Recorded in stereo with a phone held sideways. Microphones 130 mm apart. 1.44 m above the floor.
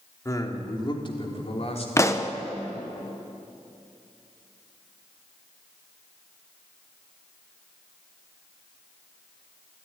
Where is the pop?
20° left (ahead or behind), 1.1 m.